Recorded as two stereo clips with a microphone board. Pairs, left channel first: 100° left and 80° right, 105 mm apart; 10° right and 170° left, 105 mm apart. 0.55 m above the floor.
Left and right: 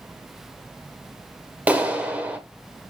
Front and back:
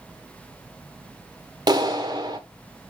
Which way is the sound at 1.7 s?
150° right.